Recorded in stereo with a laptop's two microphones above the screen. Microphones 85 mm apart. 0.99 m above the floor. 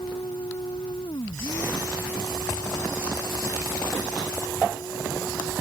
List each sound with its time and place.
0.0 s a machine running: 75° left (ahead or behind)